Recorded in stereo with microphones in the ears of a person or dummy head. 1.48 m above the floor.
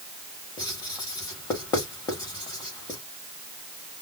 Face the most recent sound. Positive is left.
turn(degrees=15)  # may be behind; listen again after turning